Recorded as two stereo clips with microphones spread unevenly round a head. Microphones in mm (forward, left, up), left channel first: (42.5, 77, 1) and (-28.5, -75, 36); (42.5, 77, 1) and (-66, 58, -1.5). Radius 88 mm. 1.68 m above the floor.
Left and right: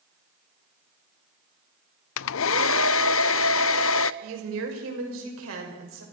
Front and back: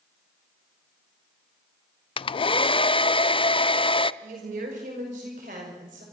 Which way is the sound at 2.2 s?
55° left.